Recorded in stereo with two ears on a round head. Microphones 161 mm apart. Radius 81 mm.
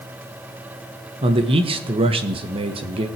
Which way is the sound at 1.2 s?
35° right (ahead or behind).